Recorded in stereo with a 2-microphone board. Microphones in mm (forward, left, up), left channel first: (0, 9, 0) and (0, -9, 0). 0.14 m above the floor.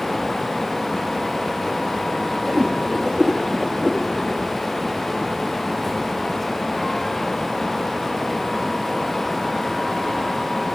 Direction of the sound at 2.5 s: 50° right (ahead or behind).